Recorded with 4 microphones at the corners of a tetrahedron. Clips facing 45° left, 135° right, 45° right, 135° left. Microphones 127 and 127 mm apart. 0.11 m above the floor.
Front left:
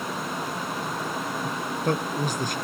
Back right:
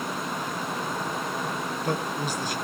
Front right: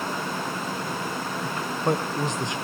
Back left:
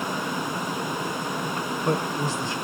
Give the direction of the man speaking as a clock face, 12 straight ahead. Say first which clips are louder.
Front left 4 dB, front right 1 dB; 11 o'clock.